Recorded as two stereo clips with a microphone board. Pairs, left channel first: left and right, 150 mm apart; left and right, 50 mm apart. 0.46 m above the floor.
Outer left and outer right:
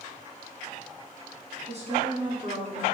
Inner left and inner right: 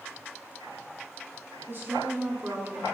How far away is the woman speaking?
About 4 m.